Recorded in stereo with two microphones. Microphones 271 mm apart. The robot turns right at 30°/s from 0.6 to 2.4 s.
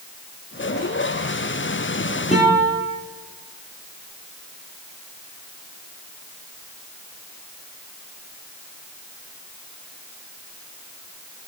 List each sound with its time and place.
2.3 s a guitar: 25° left (ahead or behind), 1.4 m